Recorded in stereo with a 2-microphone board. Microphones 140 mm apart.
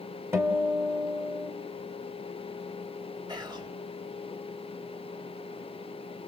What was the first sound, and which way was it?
A guitar, 20° right (ahead or behind).